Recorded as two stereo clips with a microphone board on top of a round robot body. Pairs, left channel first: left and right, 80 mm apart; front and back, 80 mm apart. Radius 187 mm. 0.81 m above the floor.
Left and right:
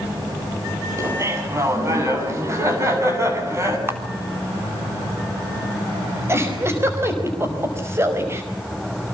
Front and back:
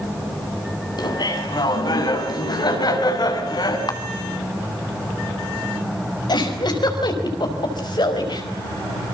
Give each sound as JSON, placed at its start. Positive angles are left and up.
{"t": 1.0, "sound": "laughter", "azimuth_deg": -35, "distance_m": 7.0}
{"t": 3.9, "sound": "a camera shutter", "azimuth_deg": -30, "distance_m": 3.5}
{"t": 6.3, "sound": "a giggle", "azimuth_deg": -30, "distance_m": 5.0}